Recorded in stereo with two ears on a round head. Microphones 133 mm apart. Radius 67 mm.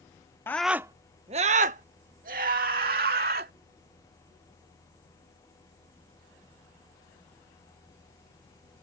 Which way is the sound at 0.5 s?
15° left (ahead or behind).